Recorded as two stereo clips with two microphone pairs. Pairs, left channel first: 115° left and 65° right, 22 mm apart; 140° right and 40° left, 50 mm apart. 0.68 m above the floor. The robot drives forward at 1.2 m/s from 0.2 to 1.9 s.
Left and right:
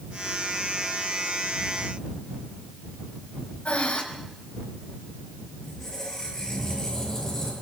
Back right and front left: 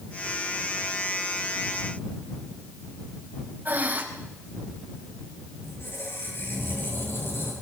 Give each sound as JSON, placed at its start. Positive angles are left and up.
{"t": 3.6, "sound": "breathing", "azimuth_deg": 90, "distance_m": 4.5}
{"t": 5.6, "sound": "a squeak", "azimuth_deg": -175, "distance_m": 10.0}